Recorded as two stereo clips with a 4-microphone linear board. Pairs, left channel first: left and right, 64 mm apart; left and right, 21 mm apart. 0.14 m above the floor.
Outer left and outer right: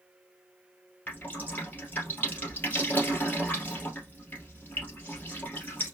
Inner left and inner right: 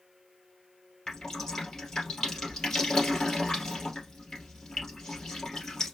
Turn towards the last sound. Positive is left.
turn(degrees=25)  # may be behind; listen again after turning